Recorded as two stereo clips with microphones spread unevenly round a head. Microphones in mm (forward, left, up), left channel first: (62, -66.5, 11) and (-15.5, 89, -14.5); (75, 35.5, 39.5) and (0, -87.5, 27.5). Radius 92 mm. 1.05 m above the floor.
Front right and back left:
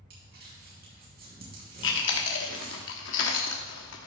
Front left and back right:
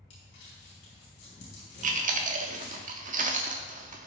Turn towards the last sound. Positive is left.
turn(degrees=-85)